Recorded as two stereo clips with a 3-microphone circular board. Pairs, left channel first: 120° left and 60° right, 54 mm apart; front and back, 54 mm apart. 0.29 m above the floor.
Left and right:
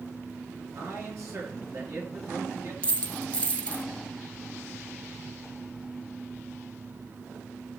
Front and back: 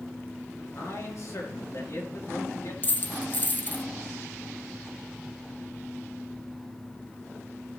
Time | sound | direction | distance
0.8 | a man speaking | 30° right | 4 m
2.8 | a dropped coin | 50° left | 0.9 m